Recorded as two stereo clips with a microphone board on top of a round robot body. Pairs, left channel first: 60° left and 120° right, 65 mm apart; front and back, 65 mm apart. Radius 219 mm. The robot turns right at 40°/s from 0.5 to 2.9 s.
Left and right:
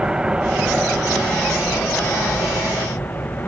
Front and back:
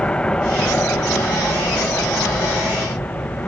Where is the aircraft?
60° right; by 3.5 s 40° left.